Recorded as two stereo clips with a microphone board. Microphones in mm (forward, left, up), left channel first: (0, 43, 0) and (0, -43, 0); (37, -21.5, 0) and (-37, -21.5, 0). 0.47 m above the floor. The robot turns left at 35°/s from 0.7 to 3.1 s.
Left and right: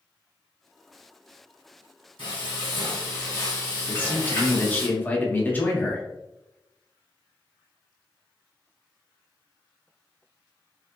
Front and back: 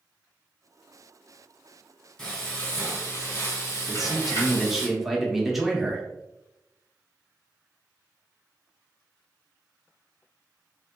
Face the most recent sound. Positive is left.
turn(degrees=100)